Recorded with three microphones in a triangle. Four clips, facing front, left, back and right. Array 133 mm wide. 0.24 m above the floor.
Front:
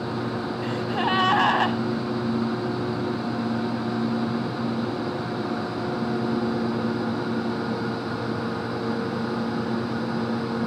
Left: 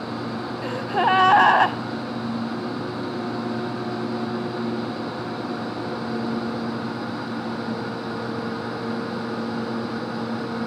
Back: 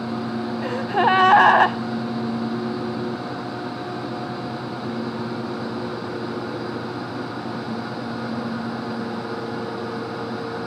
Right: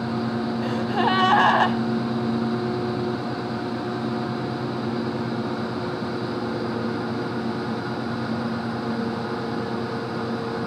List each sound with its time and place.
0.6 s a gasp: 160° left, 0.7 m